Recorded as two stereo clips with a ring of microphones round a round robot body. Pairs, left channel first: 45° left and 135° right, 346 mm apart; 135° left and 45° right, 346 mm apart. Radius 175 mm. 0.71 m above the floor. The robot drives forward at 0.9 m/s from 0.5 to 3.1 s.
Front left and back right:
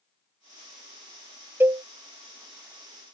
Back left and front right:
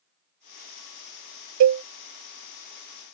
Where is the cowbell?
50° right; by 1.8 s 80° right.